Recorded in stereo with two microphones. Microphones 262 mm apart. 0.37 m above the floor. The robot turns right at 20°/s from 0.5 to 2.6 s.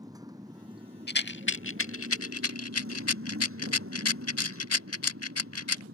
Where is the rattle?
40° left (ahead or behind); by 5.8 s 65° left (ahead or behind).